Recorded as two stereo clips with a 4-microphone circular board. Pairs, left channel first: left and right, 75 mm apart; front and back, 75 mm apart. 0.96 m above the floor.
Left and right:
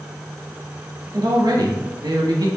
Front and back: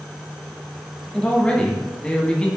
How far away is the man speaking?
About 1.4 m.